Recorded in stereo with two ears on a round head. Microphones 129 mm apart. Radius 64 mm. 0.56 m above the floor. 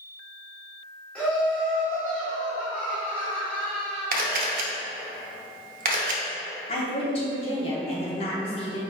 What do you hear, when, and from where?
1.1 s laughter: 10° left (ahead or behind), 1.6 m
4.1 s a camera shutter: 65° right (ahead or behind), 0.6 m
6.7 s a woman speaking: 40° left (ahead or behind), 0.9 m